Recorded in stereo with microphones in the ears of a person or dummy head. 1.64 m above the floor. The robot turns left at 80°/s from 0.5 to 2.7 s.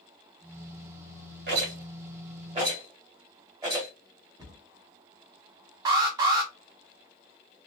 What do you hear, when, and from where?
1.5 s a rattle: 60° right (ahead or behind), 1.7 m; by 3.9 s 15° right (ahead or behind), 1.7 m
4.4 s a cupboard door: 20° right (ahead or behind), 1.4 m
5.8 s an alarm: 15° right (ahead or behind), 0.6 m